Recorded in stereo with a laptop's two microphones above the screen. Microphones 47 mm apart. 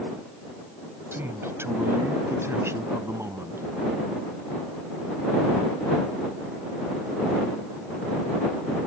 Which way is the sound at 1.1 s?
55° right (ahead or behind).